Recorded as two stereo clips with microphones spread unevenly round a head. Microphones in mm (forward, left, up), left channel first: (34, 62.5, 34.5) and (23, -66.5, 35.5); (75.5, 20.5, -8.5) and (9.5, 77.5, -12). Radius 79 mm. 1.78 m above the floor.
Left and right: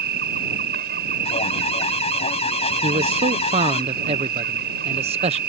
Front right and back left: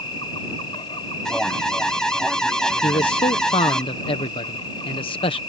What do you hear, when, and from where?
0.0 s an insect: 100° right
1.2 s an alarm: 40° left
2.8 s a man speaking: 55° right